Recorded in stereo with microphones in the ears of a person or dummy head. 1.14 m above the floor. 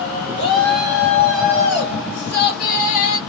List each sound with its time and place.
0.4 s a shout: 15° left (ahead or behind), 1.2 m; by 3.2 s 50° left (ahead or behind), 1.0 m